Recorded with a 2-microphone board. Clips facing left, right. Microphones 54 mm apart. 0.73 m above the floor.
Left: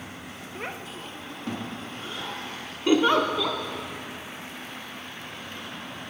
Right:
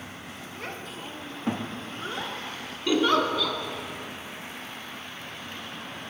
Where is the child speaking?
25° left (ahead or behind), 0.6 m; by 2.4 s 40° right (ahead or behind), 1.6 m.